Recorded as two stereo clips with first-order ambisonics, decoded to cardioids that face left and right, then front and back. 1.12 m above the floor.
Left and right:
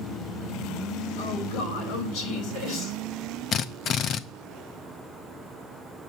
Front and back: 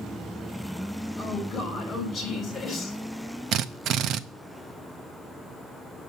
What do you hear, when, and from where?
1.2 s a woman speaking: 75° left, 4.5 m
3.5 s a drill: 140° left, 0.5 m